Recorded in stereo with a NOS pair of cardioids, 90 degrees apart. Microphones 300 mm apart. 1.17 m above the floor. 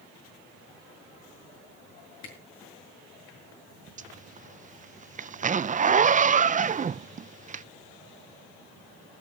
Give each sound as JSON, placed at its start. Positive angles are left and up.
{"t": 2.2, "sound": "a camera shutter", "azimuth_deg": 65, "distance_m": 7.0}
{"t": 4.0, "sound": "a zipper", "azimuth_deg": -25, "distance_m": 0.5}